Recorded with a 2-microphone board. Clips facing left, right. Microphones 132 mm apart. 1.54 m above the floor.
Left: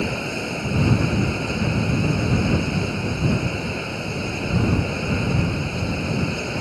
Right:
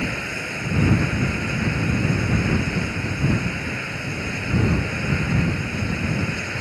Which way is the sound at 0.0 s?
20° left (ahead or behind).